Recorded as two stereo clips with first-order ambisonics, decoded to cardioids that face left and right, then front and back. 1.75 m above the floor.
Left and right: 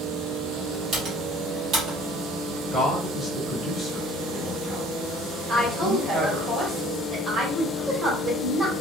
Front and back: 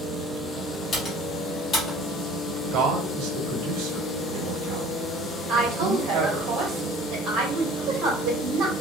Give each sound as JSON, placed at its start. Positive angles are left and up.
{"t": 0.9, "sound": "typing on a keyboard", "azimuth_deg": -45, "distance_m": 1.2}
{"t": 2.7, "sound": "a man speaking", "azimuth_deg": 175, "distance_m": 1.3}
{"t": 5.5, "sound": "a woman speaking", "azimuth_deg": -155, "distance_m": 1.5}